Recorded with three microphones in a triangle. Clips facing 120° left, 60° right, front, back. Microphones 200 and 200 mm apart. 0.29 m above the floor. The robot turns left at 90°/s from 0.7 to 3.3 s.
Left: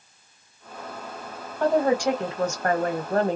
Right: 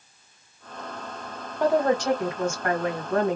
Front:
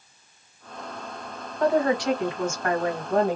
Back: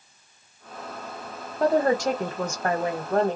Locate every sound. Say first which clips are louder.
1.6 s a woman speaking: left 1 dB, back 1 dB; 130° right, 1.2 m; by 3.4 s 75° left, 1.2 m